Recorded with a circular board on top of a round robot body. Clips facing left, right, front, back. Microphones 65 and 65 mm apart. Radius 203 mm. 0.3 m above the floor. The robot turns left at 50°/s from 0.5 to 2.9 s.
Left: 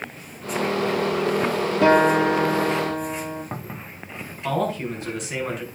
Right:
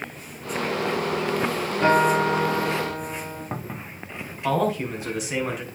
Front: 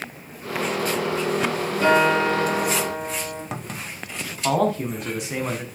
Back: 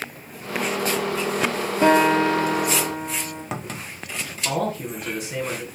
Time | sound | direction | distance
1.8 | a guitar | 110° left | 4 m
4.4 | a man speaking | 10° right | 5.5 m